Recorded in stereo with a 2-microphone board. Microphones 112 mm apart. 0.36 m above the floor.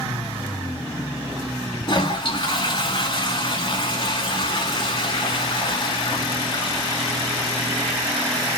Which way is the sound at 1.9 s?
45° left (ahead or behind).